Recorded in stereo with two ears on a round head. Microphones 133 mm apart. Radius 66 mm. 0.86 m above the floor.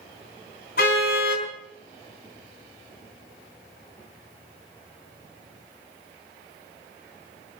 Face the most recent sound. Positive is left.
turn(degrees=70)  # may be behind; listen again after turning